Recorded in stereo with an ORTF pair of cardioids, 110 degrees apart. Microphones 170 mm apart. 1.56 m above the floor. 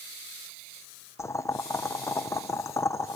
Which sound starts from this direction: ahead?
Boiling, at 1.2 s.